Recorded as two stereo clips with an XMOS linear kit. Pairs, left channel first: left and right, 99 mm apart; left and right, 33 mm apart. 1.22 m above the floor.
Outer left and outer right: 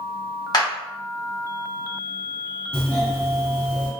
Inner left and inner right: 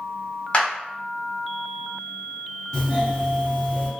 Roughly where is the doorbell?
Centre.